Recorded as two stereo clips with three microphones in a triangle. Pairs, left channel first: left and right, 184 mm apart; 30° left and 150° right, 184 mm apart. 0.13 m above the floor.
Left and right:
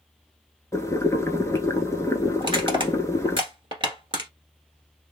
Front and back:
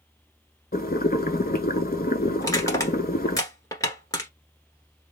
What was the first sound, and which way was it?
Boiling, 20° left.